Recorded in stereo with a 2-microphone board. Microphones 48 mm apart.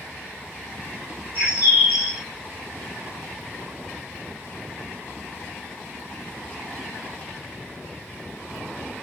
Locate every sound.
1.4 s a bird: 40° right (ahead or behind), 2 m